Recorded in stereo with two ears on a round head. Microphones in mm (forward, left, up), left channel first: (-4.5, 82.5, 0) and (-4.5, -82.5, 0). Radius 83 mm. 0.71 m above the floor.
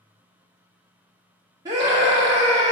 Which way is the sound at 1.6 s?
20° right (ahead or behind).